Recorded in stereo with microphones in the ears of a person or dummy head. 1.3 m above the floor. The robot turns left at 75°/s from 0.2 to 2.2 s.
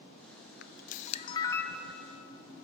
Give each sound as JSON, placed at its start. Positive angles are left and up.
{"t": 0.6, "sound": "a camera shutter", "azimuth_deg": 85, "distance_m": 0.5}